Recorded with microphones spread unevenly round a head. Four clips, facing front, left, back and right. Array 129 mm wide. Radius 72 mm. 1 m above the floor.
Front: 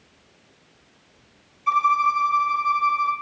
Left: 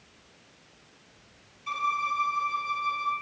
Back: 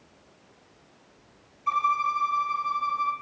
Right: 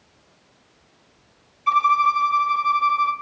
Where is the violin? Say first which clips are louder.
Right 12 dB, front 5 dB; 45° right, 1.8 m.